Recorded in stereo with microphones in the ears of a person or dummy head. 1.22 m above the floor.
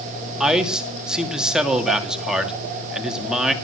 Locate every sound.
0.4 s a man speaking: 5° right (ahead or behind), 2.5 m